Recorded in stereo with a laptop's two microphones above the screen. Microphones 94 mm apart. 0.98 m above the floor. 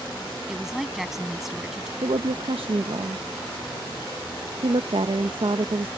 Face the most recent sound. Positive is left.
turn(degrees=-70)  # may be behind; listen again after turning